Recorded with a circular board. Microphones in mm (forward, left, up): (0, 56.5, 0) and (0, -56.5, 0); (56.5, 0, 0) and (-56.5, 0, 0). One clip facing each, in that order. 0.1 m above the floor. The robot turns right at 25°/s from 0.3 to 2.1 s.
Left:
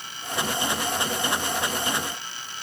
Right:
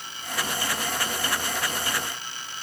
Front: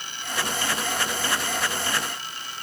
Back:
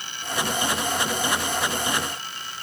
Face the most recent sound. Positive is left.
No sound to turn to.